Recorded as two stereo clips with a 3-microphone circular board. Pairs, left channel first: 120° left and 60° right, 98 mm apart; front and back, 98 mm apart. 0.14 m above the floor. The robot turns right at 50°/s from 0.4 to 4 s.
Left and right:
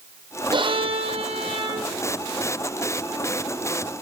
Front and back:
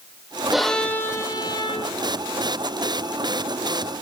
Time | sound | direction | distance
0.5 | a violin | 95° right | 1.9 m